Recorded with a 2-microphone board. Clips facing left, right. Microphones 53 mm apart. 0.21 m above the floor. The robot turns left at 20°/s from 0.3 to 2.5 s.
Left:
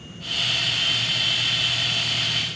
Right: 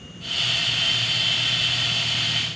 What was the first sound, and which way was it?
Only background noise.